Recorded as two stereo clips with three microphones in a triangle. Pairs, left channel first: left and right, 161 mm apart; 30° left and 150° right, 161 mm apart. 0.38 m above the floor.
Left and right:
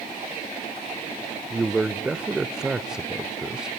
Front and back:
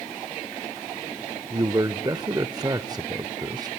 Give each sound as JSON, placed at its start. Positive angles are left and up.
{"t": 1.5, "sound": "a man speaking", "azimuth_deg": -170, "distance_m": 1.0}